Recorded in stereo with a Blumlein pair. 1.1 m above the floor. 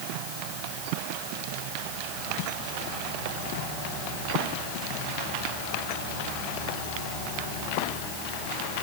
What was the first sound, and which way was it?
Only background noise.